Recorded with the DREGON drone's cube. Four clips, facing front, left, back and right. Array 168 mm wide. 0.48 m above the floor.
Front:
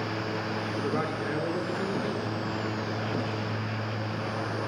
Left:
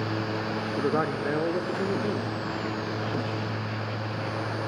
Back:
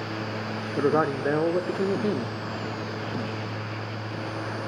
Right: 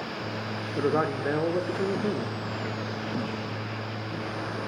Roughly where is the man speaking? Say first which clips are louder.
Right 2 dB, back 9 dB; behind.